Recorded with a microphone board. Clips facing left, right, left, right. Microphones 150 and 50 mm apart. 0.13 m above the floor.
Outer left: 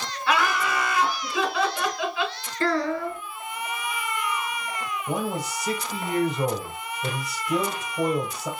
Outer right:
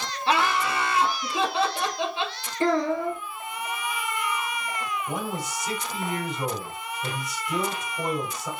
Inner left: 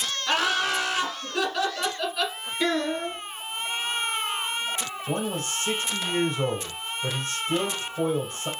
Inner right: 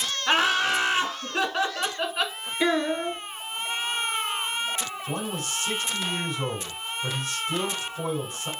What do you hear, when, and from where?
0.3 s laughter: 25° right (ahead or behind), 1.3 m
2.6 s a child speaking: 15° right (ahead or behind), 1.2 m
5.1 s a man speaking: 30° left (ahead or behind), 2.5 m